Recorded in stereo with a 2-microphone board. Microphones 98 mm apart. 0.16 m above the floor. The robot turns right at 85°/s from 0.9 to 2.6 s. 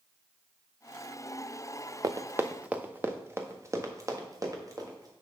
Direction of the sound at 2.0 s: 40° right (ahead or behind).